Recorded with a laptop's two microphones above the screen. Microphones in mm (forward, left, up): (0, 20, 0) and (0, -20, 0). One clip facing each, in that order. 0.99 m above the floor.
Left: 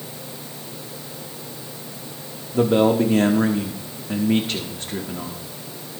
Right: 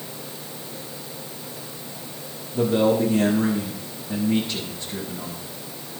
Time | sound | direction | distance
2.5 | a man speaking | 60° left (ahead or behind) | 1.3 m